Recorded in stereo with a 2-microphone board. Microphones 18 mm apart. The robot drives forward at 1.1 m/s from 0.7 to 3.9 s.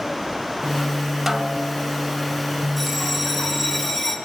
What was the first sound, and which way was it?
A snare drum, 15° right (ahead or behind).